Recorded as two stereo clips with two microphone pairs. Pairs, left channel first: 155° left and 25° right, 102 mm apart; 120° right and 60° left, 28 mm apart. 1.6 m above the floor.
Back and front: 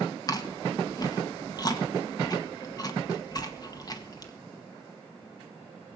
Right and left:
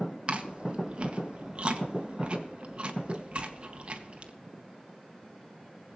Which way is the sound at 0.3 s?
105° left.